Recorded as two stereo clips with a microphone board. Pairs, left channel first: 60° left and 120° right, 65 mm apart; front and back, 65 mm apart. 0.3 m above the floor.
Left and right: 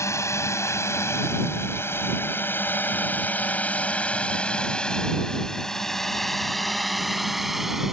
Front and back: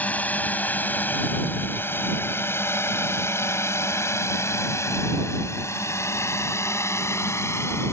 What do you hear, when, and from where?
0.0 s a drone: 60° left; by 7.9 s 35° right